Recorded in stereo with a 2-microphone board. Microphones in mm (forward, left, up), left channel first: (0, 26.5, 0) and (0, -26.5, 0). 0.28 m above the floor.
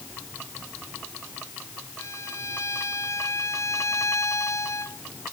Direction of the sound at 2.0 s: 65° left (ahead or behind).